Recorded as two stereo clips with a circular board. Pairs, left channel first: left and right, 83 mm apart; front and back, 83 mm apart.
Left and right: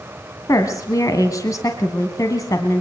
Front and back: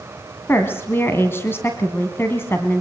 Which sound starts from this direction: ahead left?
A woman speaking, at 0.5 s.